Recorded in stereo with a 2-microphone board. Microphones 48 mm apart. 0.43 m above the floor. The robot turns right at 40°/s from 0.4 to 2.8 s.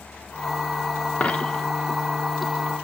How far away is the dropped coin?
About 0.8 m.